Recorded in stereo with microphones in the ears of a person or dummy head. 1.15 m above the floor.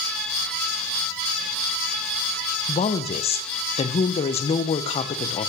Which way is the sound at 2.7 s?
25° left (ahead or behind).